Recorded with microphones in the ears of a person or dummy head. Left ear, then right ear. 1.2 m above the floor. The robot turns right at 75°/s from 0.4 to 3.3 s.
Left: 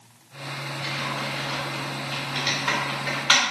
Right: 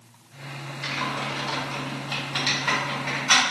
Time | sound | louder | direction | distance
0.8 | typing on a keyboard | right 2 dB | 20° right (ahead or behind) | 1.7 m